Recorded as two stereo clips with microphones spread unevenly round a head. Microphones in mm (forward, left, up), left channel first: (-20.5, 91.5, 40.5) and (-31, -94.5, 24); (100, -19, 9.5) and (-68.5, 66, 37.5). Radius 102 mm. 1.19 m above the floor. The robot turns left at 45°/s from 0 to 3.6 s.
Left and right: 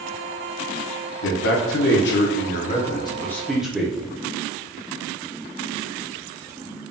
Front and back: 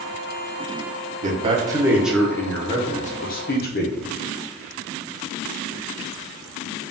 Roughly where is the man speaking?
Left.